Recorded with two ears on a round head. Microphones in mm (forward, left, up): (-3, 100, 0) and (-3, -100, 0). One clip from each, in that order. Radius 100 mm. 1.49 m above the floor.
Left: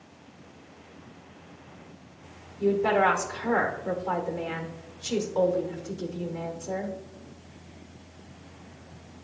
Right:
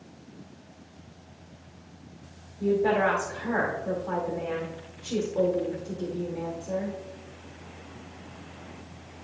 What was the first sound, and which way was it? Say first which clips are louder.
A woman speaking: left 1 dB; 80° left.